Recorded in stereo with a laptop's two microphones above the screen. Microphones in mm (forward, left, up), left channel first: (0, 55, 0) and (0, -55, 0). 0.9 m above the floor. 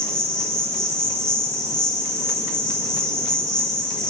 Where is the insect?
5° left (ahead or behind), 1.0 m.